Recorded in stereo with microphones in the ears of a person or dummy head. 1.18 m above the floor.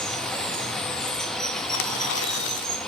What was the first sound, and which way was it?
Running water, 10° left (ahead or behind).